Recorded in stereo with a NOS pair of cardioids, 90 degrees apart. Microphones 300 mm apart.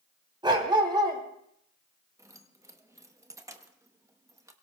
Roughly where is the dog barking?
Ahead.